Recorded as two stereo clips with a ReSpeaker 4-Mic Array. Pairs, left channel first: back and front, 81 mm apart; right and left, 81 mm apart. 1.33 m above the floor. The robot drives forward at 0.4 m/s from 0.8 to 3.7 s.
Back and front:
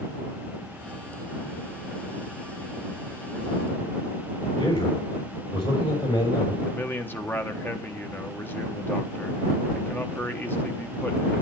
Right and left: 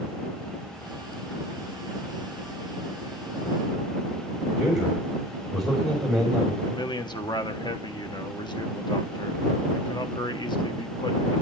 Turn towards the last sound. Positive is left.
turn(degrees=-115)